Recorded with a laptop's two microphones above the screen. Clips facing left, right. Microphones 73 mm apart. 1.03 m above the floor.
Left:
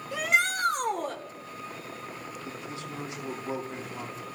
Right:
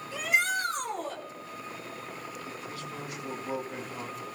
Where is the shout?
60° left (ahead or behind), 3.5 m.